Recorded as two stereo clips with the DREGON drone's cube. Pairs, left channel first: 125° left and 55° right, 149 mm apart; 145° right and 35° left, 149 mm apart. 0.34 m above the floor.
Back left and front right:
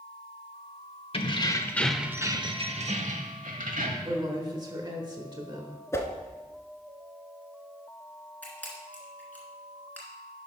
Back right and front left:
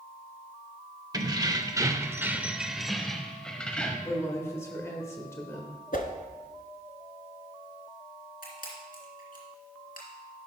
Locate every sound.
1.1 s keys jangling: 90° left, 0.8 m; by 3.9 s 65° right, 1.3 m
4.0 s a woman speaking: 90° right, 1.1 m
5.9 s a whoosh: 165° right, 0.9 m
8.4 s a camera shutter: 155° right, 2.5 m